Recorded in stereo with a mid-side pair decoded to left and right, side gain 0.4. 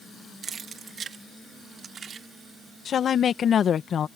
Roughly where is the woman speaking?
Ahead left.